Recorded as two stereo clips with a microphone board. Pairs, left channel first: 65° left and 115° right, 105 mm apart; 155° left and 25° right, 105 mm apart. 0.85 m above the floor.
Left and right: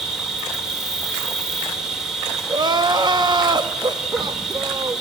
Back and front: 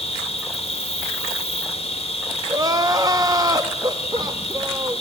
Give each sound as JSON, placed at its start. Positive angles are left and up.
{"t": 0.0, "sound": "an insect", "azimuth_deg": 160, "distance_m": 2.5}
{"t": 2.5, "sound": "crying", "azimuth_deg": -75, "distance_m": 1.0}